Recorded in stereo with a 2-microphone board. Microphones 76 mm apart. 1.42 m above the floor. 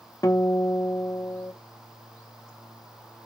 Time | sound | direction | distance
0.2 | a guitar | 45° left (ahead or behind) | 0.6 m